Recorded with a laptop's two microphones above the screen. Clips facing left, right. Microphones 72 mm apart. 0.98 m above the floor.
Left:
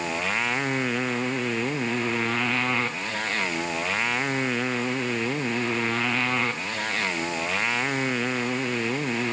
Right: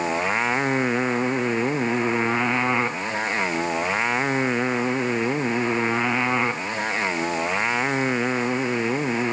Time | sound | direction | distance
0.0 | a motorcycle | 25° right (ahead or behind) | ?